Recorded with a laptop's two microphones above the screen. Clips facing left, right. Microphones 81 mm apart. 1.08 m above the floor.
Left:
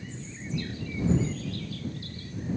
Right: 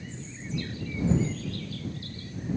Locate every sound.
Only background noise.